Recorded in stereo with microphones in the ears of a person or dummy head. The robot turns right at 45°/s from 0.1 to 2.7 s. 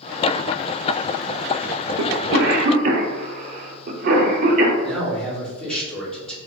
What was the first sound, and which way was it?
A cough, 70° right (ahead or behind).